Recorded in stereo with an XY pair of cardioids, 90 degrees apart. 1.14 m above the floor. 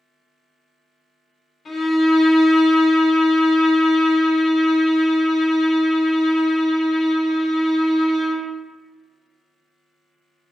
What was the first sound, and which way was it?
A violin, 60° left.